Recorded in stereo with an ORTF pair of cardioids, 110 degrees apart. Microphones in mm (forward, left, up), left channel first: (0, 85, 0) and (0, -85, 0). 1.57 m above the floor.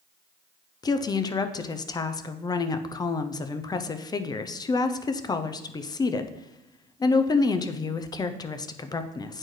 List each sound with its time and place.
0.8 s a woman speaking: 25° left, 0.5 m